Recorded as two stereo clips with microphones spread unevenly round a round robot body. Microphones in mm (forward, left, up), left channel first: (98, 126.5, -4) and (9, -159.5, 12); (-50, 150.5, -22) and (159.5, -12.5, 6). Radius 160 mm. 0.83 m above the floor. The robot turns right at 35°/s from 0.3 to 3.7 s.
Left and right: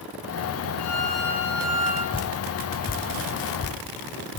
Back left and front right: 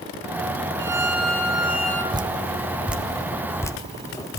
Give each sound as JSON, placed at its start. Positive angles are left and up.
{"t": 0.8, "sound": "a violin", "azimuth_deg": 35, "distance_m": 3.5}
{"t": 2.1, "sound": "dripping", "azimuth_deg": 5, "distance_m": 0.6}